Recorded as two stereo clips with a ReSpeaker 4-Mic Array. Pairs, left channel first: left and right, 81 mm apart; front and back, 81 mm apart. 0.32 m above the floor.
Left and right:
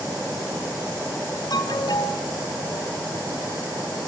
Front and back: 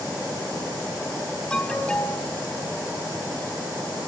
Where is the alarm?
75° left, 3.5 m.